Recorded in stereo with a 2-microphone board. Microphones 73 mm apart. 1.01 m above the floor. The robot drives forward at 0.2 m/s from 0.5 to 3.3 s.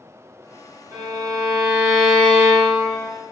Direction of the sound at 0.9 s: 50° right (ahead or behind).